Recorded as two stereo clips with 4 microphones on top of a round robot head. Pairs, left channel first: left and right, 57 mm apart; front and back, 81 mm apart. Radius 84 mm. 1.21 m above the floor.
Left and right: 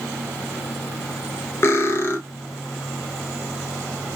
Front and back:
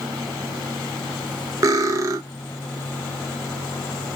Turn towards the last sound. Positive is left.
turn(degrees=135)